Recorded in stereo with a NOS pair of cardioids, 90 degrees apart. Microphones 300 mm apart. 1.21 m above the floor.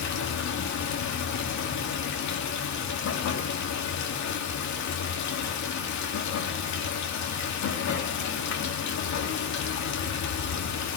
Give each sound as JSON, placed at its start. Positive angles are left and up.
{"t": 0.0, "sound": "running water", "azimuth_deg": 70, "distance_m": 2.5}